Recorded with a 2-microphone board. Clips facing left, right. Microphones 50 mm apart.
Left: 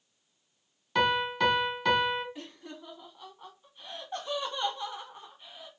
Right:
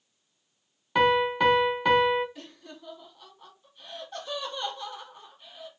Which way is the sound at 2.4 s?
20° left (ahead or behind).